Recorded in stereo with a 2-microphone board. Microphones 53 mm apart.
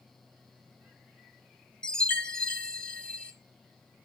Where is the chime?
20° left (ahead or behind), 1.2 m.